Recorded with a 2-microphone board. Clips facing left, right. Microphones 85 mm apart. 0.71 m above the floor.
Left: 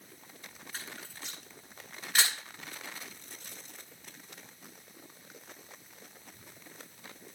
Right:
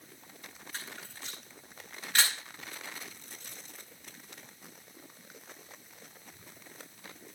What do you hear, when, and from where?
0.7 s a camera shutter: 5° left (ahead or behind), 9 m